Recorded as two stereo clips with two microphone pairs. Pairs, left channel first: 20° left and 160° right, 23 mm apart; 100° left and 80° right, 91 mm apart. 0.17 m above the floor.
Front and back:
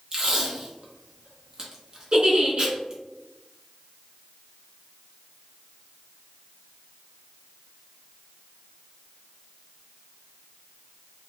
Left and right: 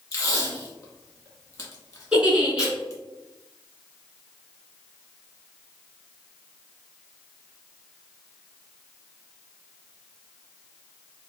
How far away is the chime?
I don't hear a chime.